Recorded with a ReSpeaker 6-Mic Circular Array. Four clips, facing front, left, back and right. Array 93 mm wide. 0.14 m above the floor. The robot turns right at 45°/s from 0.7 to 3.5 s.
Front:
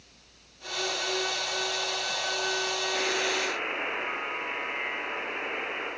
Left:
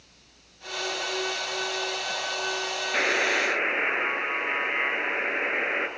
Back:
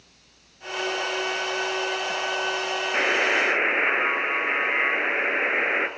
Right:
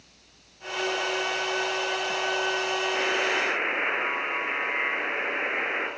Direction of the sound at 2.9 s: 145° left.